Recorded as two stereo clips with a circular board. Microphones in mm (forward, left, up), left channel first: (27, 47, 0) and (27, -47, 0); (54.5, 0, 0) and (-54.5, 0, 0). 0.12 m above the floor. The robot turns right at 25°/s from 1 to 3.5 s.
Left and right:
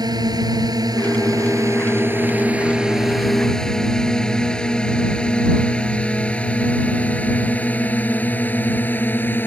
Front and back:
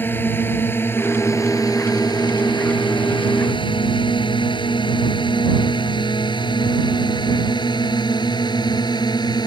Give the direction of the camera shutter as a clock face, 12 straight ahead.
I don't hear a camera shutter.